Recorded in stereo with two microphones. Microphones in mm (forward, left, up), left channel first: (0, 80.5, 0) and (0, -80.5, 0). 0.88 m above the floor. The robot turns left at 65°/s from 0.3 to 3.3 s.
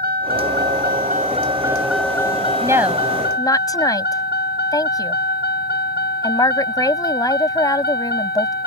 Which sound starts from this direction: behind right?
A woman speaking, at 2.6 s.